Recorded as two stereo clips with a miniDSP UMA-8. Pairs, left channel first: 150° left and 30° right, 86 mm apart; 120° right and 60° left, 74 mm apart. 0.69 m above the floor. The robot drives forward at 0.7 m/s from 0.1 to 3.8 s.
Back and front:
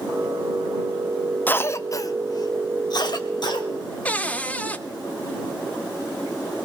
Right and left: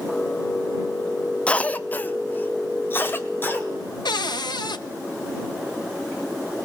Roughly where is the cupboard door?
Behind right.